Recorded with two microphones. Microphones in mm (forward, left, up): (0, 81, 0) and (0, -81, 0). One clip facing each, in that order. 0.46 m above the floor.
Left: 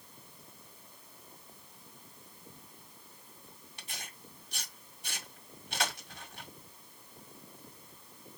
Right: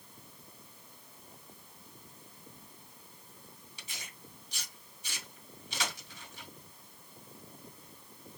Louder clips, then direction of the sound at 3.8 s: Left 3 dB; 55° left (ahead or behind).